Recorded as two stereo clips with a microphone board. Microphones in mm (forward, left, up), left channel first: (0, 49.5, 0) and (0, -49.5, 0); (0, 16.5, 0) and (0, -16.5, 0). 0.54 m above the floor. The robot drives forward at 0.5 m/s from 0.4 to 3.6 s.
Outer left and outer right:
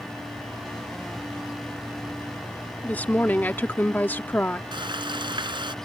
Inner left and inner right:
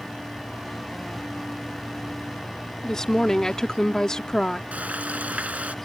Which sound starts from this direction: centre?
A woman speaking, at 2.8 s.